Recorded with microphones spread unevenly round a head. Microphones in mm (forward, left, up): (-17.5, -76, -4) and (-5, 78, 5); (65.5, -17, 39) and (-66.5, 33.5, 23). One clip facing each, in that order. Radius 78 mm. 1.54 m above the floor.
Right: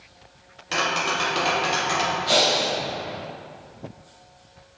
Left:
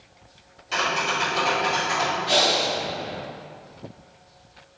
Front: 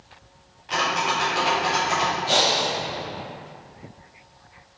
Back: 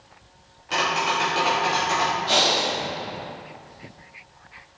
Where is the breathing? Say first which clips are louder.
Right 1 dB, even; 95° right, 2 m.